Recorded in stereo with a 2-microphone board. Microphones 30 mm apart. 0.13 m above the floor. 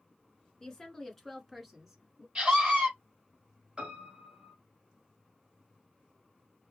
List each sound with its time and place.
0.6 s a woman speaking: 20° left (ahead or behind), 1.2 m; by 2.2 s 25° right (ahead or behind), 1.4 m
2.4 s a scream: 40° right (ahead or behind), 3 m
3.8 s a piano: 35° right (ahead or behind), 2 m